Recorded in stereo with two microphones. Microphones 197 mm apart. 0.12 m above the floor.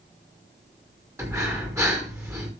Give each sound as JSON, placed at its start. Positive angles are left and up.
{"t": 1.2, "sound": "breathing", "side_deg": -15, "distance_m": 5.5}